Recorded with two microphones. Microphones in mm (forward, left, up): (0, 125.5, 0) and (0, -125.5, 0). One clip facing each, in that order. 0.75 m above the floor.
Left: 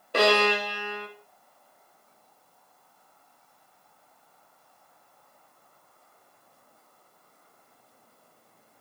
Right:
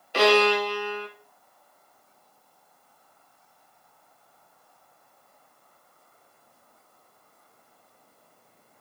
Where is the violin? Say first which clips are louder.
Right 3 dB; 55° left (ahead or behind), 1.7 m.